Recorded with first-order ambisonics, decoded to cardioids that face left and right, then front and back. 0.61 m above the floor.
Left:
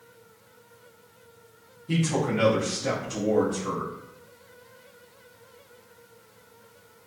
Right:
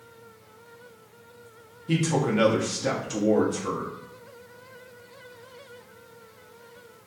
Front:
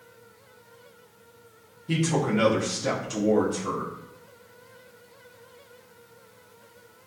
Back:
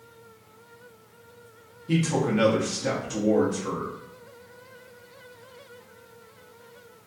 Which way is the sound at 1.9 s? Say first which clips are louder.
Right 2 dB, even; 90° right.